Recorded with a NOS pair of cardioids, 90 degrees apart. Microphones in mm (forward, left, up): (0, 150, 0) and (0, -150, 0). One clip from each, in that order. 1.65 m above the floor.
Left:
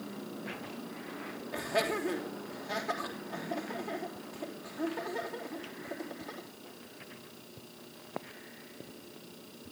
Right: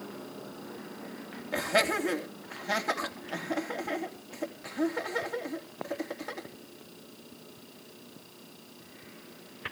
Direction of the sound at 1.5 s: 65° right.